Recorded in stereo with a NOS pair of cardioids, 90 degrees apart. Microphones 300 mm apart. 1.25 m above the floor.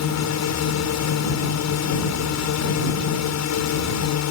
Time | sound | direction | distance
0.0 | a drone | 65° left | ?